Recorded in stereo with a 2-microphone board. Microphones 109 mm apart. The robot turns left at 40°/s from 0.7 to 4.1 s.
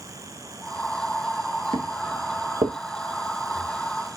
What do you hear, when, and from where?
1.7 s footsteps: 65° right (ahead or behind), 1.1 m